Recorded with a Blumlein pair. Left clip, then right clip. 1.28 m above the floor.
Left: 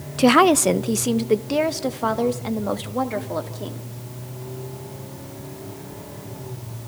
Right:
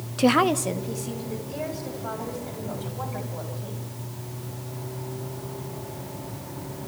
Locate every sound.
0.2 s a woman speaking: 10° left, 0.5 m; by 3.9 s 50° left, 3 m